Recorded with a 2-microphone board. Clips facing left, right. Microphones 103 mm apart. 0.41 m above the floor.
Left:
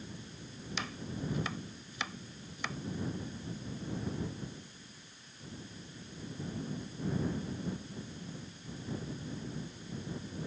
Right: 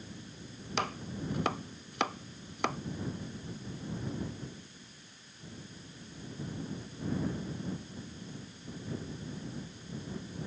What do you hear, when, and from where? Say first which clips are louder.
0.8 s chopping: right 5 dB; 60° right (ahead or behind)